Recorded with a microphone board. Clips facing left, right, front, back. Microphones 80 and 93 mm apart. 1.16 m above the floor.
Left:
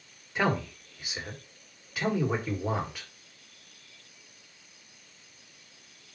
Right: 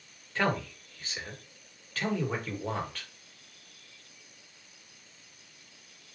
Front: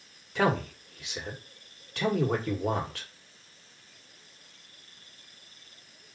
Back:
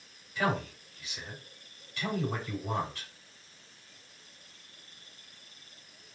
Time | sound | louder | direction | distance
0.3 | a man speaking | left 2 dB, front 4 dB | 15° left | 1.3 m